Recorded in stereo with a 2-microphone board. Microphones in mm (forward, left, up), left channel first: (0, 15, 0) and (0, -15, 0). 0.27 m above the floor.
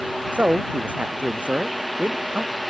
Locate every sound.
0.3 s a man speaking: 55° right (ahead or behind)